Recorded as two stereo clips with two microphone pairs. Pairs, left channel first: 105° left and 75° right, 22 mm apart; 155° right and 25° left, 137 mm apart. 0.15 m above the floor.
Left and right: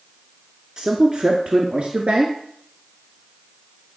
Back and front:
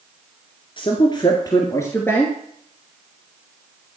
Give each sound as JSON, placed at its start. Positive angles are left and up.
{"t": 0.8, "sound": "a man speaking", "azimuth_deg": -120, "distance_m": 1.9}